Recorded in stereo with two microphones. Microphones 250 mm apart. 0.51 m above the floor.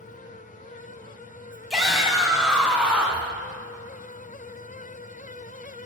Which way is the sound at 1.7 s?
Centre (ahead or behind).